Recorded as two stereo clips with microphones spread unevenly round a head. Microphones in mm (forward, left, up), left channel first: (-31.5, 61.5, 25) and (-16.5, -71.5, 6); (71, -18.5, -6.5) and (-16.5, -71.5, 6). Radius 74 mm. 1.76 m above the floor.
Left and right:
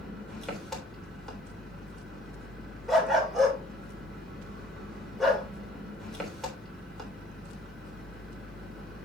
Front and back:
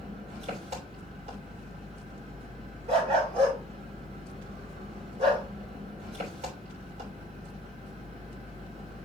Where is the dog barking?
Straight behind, 2.5 m.